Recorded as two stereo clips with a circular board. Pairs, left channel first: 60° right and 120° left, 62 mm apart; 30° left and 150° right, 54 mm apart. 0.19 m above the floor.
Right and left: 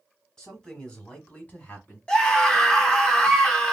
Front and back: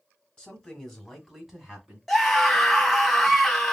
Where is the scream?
40° right, 1.0 m.